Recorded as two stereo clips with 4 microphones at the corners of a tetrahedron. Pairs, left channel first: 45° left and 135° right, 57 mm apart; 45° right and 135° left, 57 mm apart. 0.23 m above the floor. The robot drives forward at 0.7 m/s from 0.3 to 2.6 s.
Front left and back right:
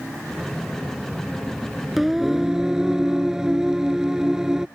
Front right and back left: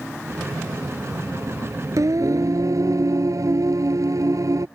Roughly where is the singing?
Behind left.